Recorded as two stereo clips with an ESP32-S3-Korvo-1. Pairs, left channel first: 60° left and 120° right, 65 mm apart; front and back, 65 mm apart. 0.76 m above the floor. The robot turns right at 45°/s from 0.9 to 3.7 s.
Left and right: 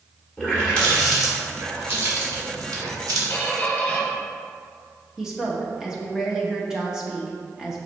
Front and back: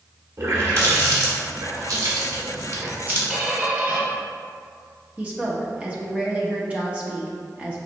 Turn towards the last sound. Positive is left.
turn(degrees=-175)